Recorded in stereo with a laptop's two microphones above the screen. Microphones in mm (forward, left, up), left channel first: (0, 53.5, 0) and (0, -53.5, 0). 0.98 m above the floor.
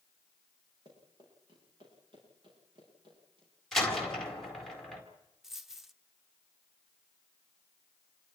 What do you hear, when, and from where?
0.8 s running footsteps: 45° right (ahead or behind), 9 m; by 3.5 s 50° right (ahead or behind), 11 m
3.7 s a door slam: 5° left (ahead or behind), 4 m
5.4 s a dropped coin: 5° right (ahead or behind), 0.9 m